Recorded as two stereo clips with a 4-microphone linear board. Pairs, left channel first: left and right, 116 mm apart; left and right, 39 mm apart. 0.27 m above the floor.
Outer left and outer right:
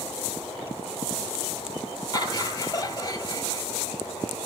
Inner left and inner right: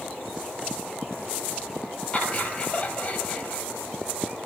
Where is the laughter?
35° left (ahead or behind), 1.5 m.